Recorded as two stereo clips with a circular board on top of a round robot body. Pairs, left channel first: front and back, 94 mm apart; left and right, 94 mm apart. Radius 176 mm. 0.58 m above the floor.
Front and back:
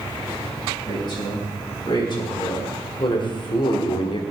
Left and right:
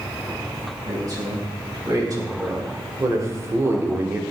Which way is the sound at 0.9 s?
40° right.